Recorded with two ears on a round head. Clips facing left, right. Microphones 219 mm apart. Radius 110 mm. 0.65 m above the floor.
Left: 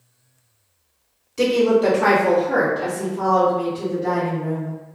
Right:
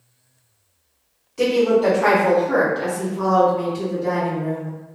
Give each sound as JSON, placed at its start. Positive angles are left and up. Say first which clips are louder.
{"t": 1.4, "sound": "a woman speaking", "louder": "even", "side_deg": 30, "distance_m": 1.0}